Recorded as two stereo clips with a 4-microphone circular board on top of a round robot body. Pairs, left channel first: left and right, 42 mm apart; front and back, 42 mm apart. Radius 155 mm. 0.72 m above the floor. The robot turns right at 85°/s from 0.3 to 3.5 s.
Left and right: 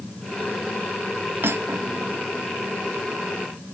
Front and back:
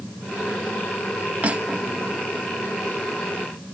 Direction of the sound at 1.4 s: 125° right.